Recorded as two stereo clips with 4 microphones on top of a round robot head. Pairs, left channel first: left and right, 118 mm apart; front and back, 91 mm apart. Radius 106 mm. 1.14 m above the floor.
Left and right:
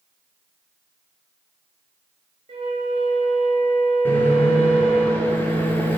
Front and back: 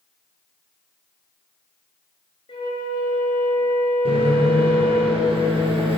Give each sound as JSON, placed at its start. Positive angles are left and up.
{"t": 2.5, "sound": "a flute", "azimuth_deg": -40, "distance_m": 1.9}
{"t": 4.0, "sound": "a microwave", "azimuth_deg": 165, "distance_m": 2.0}